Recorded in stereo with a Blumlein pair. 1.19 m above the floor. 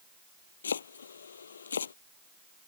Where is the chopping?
70° left.